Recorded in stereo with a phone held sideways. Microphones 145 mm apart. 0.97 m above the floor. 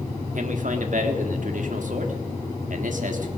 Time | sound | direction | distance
0.3 | a man speaking | 65° right (ahead or behind) | 1.5 m